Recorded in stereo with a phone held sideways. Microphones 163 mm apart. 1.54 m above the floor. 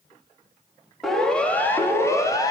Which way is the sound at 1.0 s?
Centre (ahead or behind).